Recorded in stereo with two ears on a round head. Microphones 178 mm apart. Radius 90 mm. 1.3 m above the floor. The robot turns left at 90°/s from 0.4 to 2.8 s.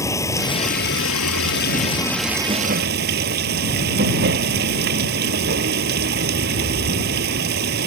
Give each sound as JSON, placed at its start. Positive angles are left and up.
{"t": 0.0, "sound": "running water", "azimuth_deg": 165}